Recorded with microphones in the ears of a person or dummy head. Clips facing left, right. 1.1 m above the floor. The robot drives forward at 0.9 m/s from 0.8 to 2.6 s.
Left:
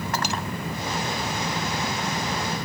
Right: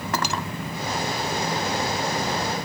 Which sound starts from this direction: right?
Cutlery clinking, at 0.1 s.